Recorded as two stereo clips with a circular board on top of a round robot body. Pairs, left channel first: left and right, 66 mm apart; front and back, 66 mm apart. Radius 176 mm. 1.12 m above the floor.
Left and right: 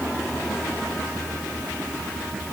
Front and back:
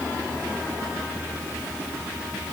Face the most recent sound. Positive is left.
No sound to turn to.